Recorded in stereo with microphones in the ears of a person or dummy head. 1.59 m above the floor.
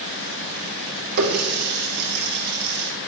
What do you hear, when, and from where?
1.2 s a running tap: 55° right (ahead or behind), 2 m